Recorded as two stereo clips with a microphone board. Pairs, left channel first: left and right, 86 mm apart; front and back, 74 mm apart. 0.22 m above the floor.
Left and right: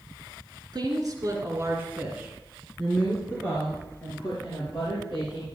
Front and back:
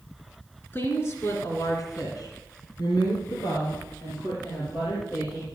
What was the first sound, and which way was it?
A woman speaking, 60° right.